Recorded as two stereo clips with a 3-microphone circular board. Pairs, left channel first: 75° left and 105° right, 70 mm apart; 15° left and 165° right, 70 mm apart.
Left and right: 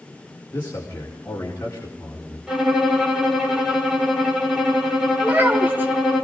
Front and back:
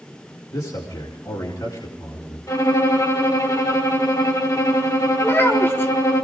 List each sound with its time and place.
0.5 s a man speaking: 20° left, 4.5 m
2.5 s a violin: 20° right, 5.5 m
5.2 s a child speaking: 40° right, 3.5 m